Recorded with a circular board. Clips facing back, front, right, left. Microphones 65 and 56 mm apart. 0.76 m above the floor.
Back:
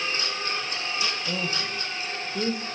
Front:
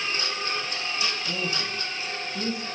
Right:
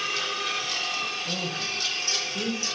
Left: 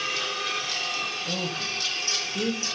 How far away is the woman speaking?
About 4 m.